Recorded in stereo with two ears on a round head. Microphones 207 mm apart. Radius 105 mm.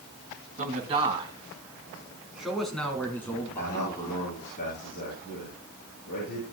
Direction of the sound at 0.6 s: 35° right (ahead or behind).